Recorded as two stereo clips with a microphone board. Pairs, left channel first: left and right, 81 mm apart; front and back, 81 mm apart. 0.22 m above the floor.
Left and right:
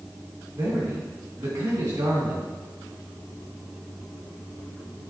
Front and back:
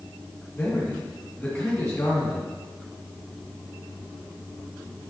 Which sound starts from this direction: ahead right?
A man speaking, at 0.6 s.